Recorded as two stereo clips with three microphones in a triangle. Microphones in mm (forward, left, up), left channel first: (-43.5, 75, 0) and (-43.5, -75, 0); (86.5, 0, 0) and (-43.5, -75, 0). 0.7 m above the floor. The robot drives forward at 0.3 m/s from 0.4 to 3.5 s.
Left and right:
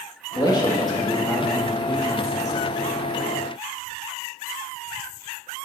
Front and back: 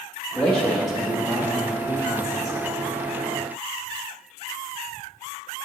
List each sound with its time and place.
0.3 s a man speaking: 100° left, 1.0 m; by 2.6 s 150° left, 1.2 m